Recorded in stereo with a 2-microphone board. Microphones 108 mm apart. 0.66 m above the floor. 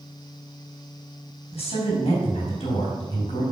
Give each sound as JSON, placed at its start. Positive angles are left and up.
{"t": 1.5, "sound": "a woman speaking", "side_deg": 60, "distance_m": 5.0}